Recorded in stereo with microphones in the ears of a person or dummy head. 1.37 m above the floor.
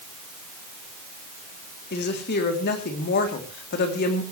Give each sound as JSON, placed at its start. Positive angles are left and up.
{"t": 1.9, "sound": "a woman speaking", "side_deg": 50, "distance_m": 3.5}